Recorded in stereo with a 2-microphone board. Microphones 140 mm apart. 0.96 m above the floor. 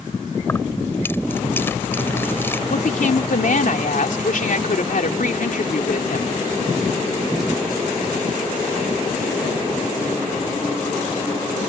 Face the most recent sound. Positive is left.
turn(degrees=70)  # may be behind; listen again after turning